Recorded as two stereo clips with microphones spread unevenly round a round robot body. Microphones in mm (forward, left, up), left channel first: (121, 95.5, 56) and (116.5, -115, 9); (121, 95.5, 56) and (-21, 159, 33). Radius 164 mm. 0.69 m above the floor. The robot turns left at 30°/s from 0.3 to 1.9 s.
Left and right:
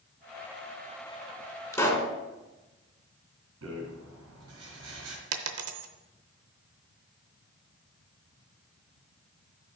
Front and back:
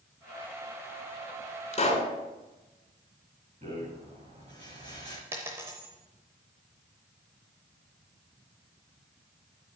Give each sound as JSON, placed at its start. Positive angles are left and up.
{"t": 1.7, "sound": "a pop", "azimuth_deg": 15, "distance_m": 2.5}
{"t": 3.6, "sound": "a rattle", "azimuth_deg": -135, "distance_m": 2.5}
{"t": 5.3, "sound": "a dropped coin", "azimuth_deg": -120, "distance_m": 0.6}